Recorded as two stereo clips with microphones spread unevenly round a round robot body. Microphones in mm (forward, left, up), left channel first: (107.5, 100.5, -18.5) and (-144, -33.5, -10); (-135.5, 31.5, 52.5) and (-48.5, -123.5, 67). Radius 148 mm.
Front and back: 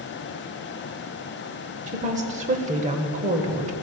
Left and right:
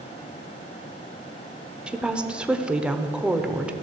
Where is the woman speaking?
150° right, 0.9 m.